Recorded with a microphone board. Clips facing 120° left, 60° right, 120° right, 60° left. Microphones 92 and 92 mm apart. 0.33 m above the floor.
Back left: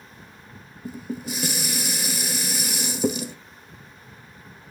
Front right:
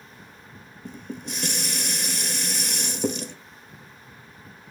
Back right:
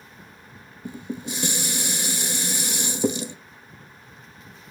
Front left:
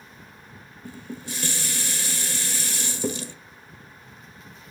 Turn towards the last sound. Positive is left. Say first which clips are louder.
# back left 4 dB, back right 5 dB
turn(degrees=-160)